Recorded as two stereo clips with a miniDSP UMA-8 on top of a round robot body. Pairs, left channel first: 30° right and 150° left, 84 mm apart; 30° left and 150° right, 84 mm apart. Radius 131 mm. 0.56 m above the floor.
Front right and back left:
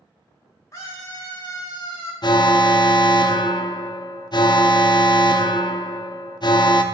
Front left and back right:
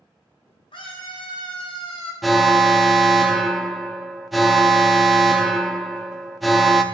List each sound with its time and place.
0.7 s a scream: 20° left, 4 m; by 2.1 s 10° left, 4.5 m
2.2 s an alarm: 60° right, 0.8 m